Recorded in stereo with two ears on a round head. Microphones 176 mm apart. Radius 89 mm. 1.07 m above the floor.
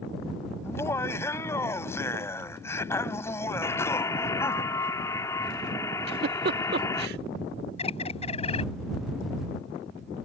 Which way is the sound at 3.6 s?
15° left (ahead or behind).